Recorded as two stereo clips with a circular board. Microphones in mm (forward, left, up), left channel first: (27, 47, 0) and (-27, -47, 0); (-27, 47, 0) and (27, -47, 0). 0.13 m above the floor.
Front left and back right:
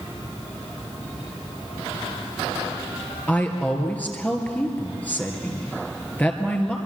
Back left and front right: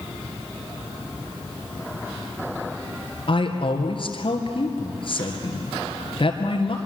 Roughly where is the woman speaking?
Behind left.